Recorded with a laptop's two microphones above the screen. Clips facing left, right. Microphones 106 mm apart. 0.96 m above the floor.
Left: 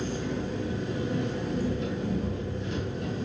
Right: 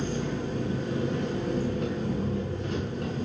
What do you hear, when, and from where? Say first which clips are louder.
0.0 s an engine running: right 1 dB; 50° right (ahead or behind), 5.5 m